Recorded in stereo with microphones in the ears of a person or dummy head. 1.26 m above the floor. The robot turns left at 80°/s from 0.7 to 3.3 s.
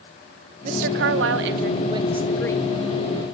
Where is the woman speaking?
50° right, 0.8 m; by 2.7 s 150° left, 0.8 m.